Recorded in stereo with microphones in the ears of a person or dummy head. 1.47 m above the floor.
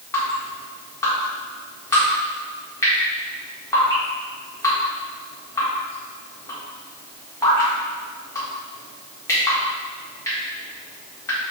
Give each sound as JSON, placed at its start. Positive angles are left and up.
{"t": 0.1, "sound": "dripping", "side_deg": 15, "distance_m": 1.4}